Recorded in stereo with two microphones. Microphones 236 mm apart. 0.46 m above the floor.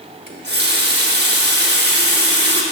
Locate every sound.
0.3 s a running tap: 45° right (ahead or behind), 0.9 m